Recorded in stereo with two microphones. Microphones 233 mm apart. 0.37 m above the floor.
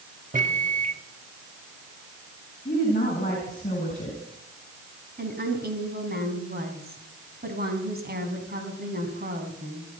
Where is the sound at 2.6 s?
40° left (ahead or behind), 4 m.